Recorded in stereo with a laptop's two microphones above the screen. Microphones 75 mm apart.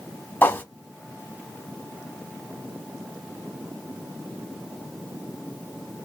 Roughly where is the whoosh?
Left.